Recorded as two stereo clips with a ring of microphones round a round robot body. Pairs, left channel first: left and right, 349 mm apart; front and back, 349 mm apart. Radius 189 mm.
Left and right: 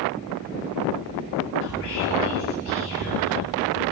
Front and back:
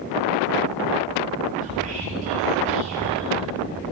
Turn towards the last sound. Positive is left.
turn(degrees=110)